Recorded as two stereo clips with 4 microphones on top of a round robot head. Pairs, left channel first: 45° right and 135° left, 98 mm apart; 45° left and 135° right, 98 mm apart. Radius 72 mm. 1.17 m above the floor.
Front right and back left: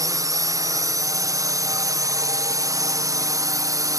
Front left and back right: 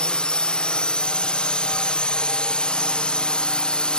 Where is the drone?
120° left.